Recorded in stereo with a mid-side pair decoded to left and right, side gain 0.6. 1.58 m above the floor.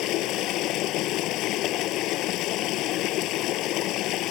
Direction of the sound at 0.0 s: 70° left.